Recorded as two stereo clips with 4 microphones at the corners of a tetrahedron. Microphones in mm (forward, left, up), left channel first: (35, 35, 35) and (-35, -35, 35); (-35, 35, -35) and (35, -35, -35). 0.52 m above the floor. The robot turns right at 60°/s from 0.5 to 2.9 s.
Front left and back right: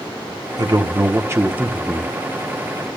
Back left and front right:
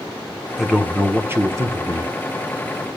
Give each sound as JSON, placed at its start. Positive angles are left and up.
{"t": 0.6, "sound": "a man speaking", "azimuth_deg": -130, "distance_m": 1.1}